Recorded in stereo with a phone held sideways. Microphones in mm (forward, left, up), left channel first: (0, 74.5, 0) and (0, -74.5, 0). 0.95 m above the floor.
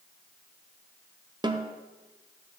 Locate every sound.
1.4 s a snare drum: 25° right (ahead or behind), 0.5 m